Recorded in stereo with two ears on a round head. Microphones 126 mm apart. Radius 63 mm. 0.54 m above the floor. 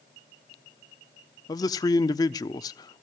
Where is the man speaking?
25° left (ahead or behind), 0.8 m.